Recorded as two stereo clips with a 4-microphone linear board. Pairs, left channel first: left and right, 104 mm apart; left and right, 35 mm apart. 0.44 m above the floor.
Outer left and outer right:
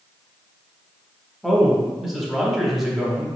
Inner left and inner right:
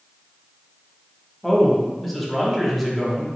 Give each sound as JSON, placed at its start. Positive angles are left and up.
{"t": 1.4, "sound": "a man speaking", "side_deg": -5, "distance_m": 0.8}